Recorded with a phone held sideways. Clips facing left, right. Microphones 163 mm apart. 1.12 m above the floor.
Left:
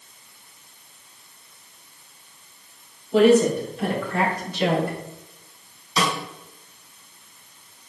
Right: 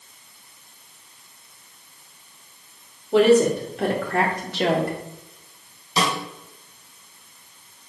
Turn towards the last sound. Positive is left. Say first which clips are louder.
# right 1 dB
turn(degrees=-35)  # may be behind; listen again after turning